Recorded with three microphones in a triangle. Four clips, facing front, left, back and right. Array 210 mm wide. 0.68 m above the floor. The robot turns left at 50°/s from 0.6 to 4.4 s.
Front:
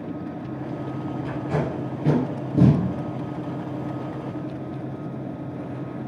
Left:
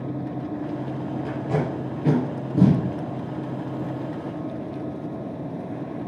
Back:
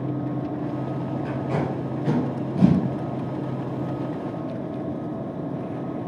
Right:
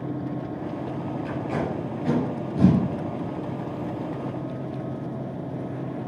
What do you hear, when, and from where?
1.2 s tape being pulled: 100° left, 4.5 m; by 2.8 s 20° left, 4.5 m